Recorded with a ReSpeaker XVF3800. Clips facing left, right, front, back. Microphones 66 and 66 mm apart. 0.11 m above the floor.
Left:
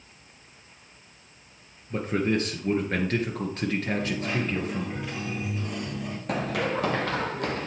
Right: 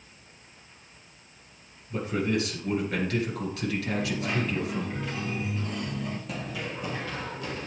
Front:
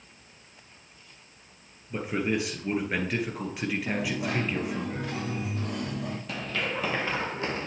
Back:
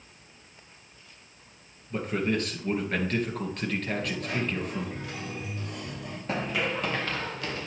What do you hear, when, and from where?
1.9 s a man speaking: 75° left, 1.8 m
3.9 s a dropped coin: 10° left, 2.5 m
6.3 s running footsteps: 120° left, 0.6 m; by 7.7 s 60° left, 1.1 m